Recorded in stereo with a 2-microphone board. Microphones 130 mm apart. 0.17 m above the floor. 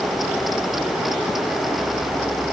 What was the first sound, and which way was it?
Only background noise.